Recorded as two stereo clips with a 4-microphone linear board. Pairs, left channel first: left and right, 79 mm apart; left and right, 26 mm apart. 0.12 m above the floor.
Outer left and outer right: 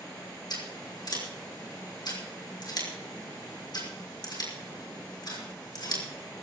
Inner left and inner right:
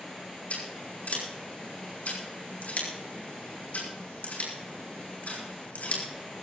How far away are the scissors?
About 5 m.